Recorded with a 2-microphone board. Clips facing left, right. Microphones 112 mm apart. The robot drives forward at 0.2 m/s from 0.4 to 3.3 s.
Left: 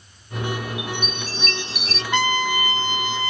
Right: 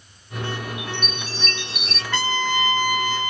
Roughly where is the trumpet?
Centre.